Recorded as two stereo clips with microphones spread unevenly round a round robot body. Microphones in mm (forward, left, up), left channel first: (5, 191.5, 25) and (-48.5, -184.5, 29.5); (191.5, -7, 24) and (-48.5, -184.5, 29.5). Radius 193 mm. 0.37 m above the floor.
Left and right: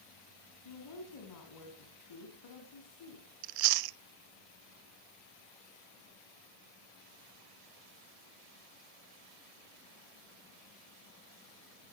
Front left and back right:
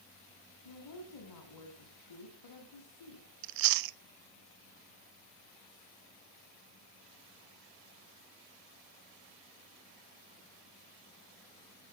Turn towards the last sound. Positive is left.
turn(degrees=-135)